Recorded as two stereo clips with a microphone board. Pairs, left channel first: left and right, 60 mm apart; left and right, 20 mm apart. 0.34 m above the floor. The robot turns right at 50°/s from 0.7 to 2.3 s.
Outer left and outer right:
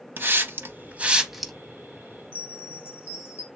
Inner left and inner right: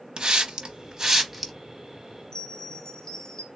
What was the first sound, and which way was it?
A hiss, 35° right (ahead or behind).